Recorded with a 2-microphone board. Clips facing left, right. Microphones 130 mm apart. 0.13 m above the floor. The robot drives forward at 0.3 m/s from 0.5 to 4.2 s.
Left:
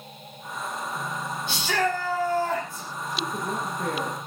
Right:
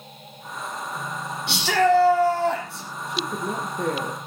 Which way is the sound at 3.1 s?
70° right (ahead or behind).